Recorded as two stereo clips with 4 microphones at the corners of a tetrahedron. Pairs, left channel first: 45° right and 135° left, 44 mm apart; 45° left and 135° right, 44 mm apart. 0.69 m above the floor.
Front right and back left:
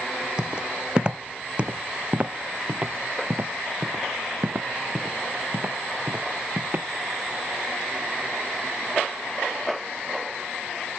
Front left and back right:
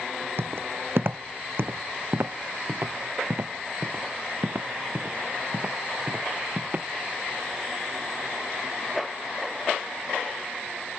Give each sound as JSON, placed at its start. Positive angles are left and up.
{"t": 0.4, "sound": "footsteps", "azimuth_deg": -155}